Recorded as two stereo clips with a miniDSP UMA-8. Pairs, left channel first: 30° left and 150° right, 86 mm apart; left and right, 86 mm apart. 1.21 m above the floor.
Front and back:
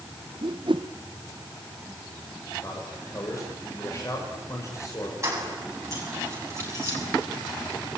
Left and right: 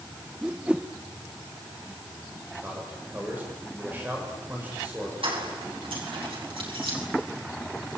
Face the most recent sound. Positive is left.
turn(degrees=-95)